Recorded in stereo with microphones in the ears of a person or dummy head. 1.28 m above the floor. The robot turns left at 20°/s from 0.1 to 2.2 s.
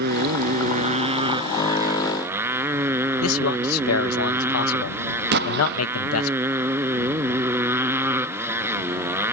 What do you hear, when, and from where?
0.0 s a motorcycle: 125° right; by 9.3 s 165° right
3.2 s a man speaking: 90° left
5.3 s an explosion: 50° right (ahead or behind)